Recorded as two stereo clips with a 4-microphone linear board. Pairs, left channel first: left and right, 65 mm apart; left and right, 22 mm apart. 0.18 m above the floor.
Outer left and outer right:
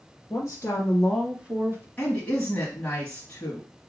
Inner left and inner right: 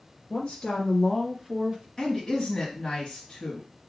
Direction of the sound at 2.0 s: 20° left (ahead or behind).